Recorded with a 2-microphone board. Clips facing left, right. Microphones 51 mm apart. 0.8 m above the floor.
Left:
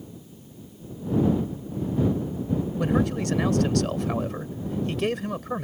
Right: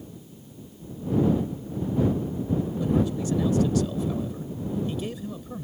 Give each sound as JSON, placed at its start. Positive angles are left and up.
{"t": 2.8, "sound": "a man speaking", "side_deg": 75}